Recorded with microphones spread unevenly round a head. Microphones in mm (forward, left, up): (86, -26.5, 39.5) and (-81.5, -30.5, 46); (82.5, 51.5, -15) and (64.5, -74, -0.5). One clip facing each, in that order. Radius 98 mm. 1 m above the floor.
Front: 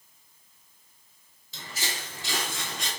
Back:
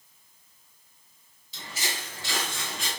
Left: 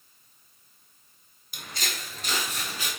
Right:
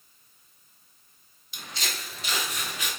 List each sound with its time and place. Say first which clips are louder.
1.5 s footsteps: back 1 dB, even; 45° left, 1.4 m; by 2.9 s 115° left, 1.0 m